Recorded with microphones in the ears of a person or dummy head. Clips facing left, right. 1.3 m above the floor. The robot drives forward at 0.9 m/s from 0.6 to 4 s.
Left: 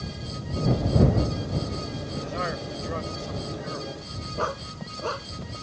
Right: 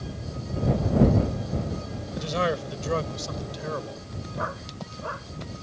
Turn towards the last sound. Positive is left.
turn(degrees=50)  # may be behind; listen again after turning